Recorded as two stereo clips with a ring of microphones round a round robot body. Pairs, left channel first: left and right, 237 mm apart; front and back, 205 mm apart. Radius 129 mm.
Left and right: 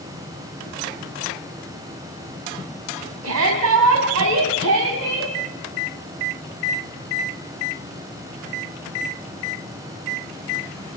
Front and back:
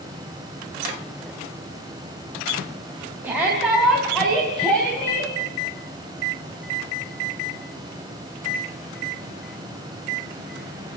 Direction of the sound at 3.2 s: 100° right.